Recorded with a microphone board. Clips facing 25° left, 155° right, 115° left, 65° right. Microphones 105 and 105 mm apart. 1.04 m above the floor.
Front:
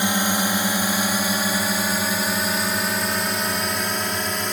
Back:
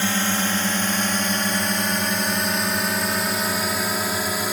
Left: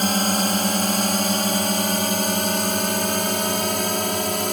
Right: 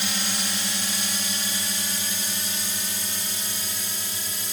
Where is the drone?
95° left; by 4.5 s 120° left.